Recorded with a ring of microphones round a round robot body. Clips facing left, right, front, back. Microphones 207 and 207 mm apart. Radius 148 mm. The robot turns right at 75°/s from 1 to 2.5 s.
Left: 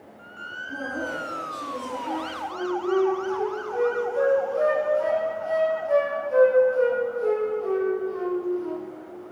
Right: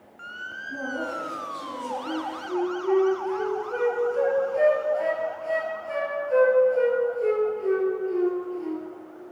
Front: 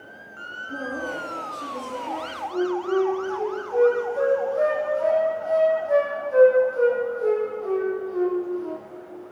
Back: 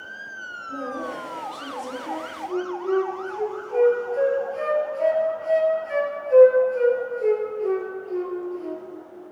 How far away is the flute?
About 2 m.